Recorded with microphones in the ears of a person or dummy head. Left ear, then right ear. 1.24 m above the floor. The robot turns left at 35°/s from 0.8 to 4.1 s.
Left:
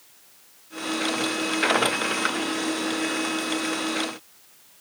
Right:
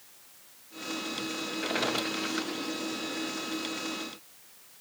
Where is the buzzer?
No buzzer in this recording.